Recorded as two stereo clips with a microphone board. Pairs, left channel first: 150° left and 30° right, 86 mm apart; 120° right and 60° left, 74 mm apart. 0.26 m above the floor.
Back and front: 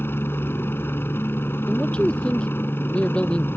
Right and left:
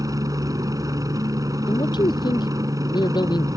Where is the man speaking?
135° right.